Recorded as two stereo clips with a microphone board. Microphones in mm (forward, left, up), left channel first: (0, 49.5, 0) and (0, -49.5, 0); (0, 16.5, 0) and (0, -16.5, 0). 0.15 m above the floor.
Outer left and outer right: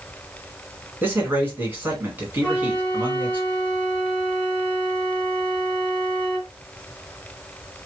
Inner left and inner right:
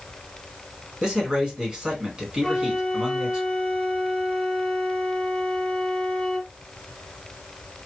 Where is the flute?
15° left (ahead or behind), 1.2 m.